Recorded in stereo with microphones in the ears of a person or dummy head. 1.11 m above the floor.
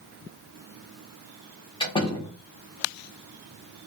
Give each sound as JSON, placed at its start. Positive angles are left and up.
{"t": 1.8, "sound": "a door slam", "side_deg": 25, "distance_m": 1.0}